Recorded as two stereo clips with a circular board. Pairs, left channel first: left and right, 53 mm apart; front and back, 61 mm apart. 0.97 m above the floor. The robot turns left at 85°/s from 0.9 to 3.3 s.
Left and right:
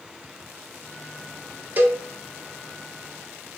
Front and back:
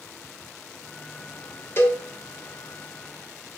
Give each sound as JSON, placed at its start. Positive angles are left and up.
{"t": 1.8, "sound": "a cowbell", "azimuth_deg": -40, "distance_m": 0.6}